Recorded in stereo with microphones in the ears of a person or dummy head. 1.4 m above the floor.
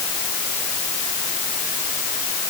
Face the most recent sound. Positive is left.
No sound to turn to.